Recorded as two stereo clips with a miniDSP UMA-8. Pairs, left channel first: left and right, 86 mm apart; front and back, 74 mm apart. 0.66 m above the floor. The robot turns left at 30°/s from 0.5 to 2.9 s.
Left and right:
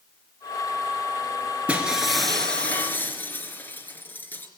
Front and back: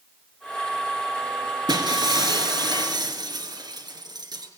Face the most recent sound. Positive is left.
turn(degrees=155)